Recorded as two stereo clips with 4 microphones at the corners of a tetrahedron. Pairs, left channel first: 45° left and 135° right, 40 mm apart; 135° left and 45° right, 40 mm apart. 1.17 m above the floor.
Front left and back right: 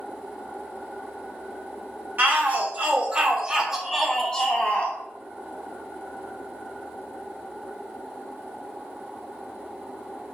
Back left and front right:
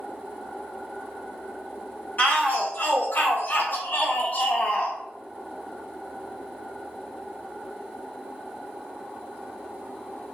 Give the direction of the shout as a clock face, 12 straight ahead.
6 o'clock.